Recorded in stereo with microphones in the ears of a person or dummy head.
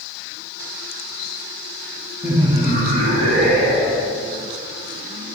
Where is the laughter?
10° right (ahead or behind), 0.7 m; by 4.1 s 55° right (ahead or behind), 1.7 m.